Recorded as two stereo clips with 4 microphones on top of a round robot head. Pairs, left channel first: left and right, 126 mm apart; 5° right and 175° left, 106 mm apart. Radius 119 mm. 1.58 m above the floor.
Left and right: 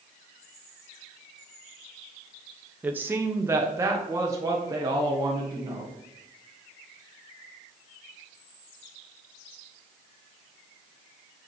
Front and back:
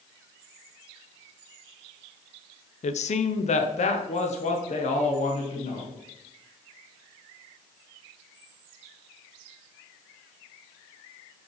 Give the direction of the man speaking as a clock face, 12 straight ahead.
12 o'clock.